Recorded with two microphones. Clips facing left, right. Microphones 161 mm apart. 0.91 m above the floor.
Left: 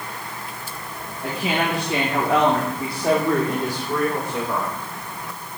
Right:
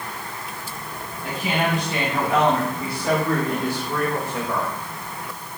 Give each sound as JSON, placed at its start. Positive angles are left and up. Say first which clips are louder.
{"t": 1.2, "sound": "a woman speaking", "louder": "left 1 dB", "side_deg": 85, "distance_m": 1.7}